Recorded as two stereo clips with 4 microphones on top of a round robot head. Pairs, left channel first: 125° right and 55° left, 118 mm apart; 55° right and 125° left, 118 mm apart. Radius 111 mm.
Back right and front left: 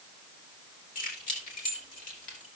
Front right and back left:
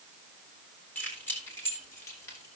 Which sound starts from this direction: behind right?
Keys jangling, at 0.9 s.